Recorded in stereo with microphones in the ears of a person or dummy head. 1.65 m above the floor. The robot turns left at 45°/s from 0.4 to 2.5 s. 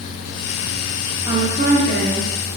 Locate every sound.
1.3 s a woman speaking: 25° right, 1.4 m; by 2.3 s 70° right, 1.4 m